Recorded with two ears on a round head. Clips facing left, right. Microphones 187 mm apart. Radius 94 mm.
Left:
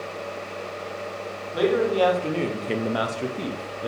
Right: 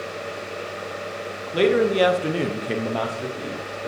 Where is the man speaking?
35° right (ahead or behind), 1.0 m; by 3.9 s 45° left (ahead or behind), 0.8 m.